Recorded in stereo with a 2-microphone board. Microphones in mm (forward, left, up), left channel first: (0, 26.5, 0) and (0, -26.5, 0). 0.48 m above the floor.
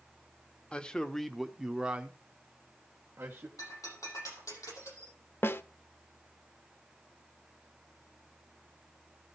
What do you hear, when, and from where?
0.7 s a man speaking: 20° left (ahead or behind), 0.8 m; by 3.5 s 40° right (ahead or behind), 1.4 m
3.6 s breaking glass: 90° left, 8 m
5.4 s a snare drum: 50° left (ahead or behind), 0.6 m